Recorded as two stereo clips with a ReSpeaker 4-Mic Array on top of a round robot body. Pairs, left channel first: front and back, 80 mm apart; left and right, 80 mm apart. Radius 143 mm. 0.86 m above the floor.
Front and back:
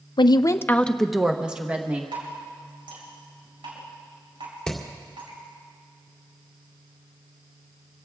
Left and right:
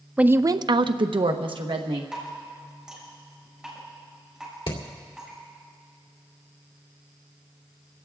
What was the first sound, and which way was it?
A woman speaking, 15° right.